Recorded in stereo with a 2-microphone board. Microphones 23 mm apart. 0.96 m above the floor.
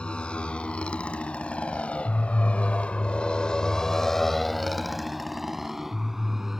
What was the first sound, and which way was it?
A motorcycle, 55° left (ahead or behind).